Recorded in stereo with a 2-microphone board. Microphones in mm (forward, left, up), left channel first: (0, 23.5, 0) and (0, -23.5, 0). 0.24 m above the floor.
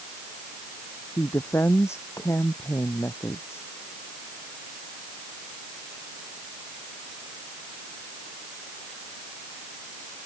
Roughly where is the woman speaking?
Left.